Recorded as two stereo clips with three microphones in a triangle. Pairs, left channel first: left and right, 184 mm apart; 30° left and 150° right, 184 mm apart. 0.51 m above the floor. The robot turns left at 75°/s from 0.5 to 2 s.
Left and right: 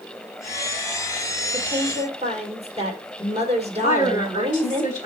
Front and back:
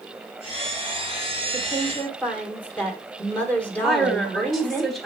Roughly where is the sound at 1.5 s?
Ahead.